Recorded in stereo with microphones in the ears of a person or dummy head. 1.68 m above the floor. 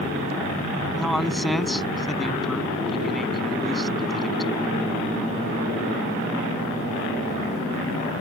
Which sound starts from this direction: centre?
A man speaking, at 0.9 s.